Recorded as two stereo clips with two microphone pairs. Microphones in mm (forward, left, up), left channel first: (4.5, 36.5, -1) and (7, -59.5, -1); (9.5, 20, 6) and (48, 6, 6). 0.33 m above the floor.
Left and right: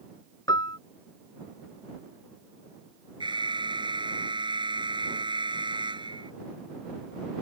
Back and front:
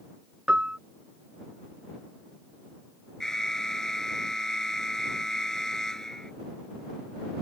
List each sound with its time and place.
0.5 s a piano: 45° left
3.2 s an alarm: 120° right